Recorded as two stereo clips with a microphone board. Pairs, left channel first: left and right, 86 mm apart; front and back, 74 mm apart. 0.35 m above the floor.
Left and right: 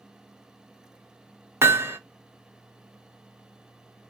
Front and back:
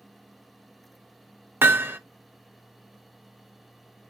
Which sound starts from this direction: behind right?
Hammering, at 1.6 s.